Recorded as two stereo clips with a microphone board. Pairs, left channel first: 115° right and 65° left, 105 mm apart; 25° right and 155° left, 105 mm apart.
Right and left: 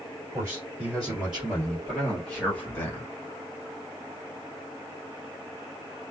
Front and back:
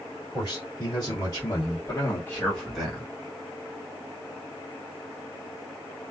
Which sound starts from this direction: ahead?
A man speaking, at 0.3 s.